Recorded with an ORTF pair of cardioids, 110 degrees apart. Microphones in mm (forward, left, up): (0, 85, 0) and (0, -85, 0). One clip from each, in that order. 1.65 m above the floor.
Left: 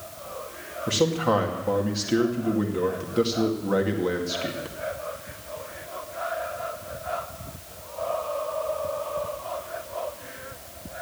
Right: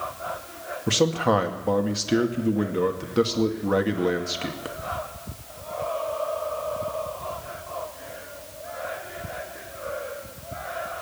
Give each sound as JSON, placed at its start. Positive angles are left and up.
{"t": 0.9, "sound": "a man speaking", "azimuth_deg": -30, "distance_m": 2.0}